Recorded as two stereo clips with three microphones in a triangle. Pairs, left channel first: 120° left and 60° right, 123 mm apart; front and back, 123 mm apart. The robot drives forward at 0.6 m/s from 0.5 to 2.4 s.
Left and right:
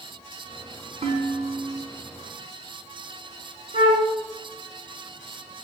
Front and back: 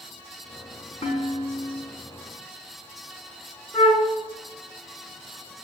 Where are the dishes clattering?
30° right, 6 m; by 1.8 s 35° right, 5.5 m.